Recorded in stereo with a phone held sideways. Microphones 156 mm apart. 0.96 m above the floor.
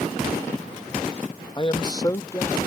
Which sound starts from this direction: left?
A man speaking, at 1.6 s.